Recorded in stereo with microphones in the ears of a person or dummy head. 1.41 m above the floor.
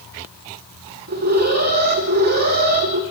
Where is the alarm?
45° right (ahead or behind), 3 m.